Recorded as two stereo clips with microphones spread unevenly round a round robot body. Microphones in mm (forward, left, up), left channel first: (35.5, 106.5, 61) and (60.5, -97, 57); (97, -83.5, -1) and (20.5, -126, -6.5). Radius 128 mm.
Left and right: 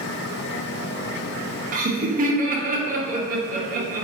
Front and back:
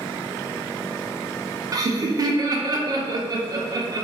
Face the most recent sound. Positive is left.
turn(degrees=-120)